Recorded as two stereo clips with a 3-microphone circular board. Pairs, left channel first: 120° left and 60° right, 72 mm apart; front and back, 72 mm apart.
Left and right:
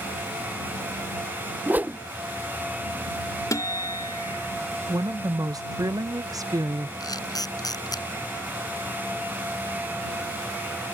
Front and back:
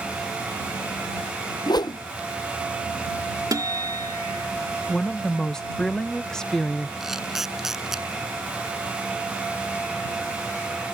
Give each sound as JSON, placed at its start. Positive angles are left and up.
{"t": 1.7, "sound": "a whoosh", "azimuth_deg": 5}
{"t": 3.5, "sound": "a guitar", "azimuth_deg": 155}
{"t": 4.9, "sound": "a woman speaking", "azimuth_deg": -80}
{"t": 7.0, "sound": "a camera shutter", "azimuth_deg": 95}